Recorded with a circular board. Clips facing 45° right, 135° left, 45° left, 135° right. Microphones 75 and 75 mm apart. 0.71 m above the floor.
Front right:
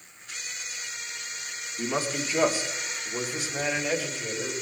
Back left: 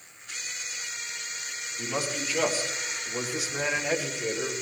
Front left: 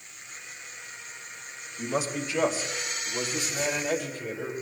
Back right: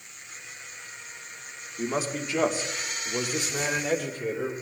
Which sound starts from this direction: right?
A man speaking, at 1.8 s.